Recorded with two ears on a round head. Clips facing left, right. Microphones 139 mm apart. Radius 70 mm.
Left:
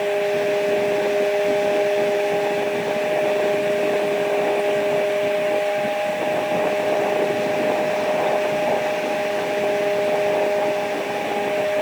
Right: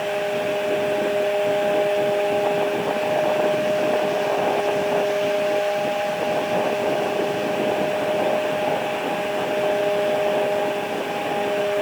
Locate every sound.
Only background noise.